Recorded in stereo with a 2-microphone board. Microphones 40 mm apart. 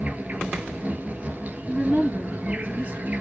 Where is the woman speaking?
40° right (ahead or behind), 2 m.